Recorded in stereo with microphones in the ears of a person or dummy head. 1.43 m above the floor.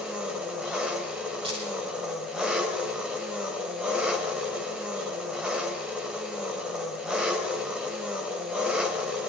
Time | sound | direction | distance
0.0 | an engine running | centre (ahead or behind) | 3 m
1.4 | a dropped coin | 30° right (ahead or behind) | 5.5 m